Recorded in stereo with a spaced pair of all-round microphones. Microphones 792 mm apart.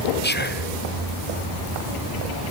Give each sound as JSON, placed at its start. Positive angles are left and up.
{"t": 0.2, "sound": "whispering", "side_deg": 15, "distance_m": 0.8}